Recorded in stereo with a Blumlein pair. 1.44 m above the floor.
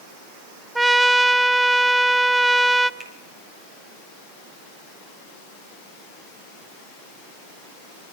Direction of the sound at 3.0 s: 10° right.